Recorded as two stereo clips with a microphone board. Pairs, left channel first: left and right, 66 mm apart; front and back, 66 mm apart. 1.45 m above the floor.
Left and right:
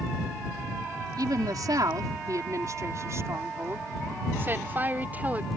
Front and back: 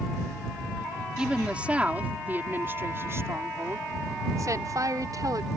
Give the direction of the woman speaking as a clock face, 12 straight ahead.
3 o'clock.